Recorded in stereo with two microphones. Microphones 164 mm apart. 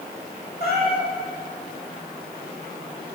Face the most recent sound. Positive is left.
turn(degrees=70)  # may be behind; listen again after turning